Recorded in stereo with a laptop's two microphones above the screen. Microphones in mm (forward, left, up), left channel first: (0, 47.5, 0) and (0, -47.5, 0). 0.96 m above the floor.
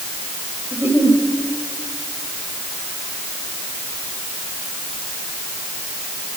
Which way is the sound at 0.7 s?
20° right (ahead or behind).